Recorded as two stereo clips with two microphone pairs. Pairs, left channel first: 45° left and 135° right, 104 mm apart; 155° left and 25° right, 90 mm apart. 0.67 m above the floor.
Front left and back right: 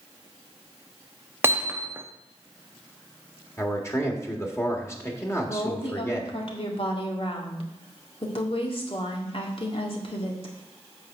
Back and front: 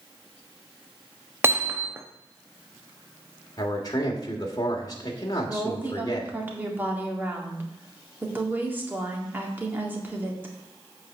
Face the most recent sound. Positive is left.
turn(degrees=45)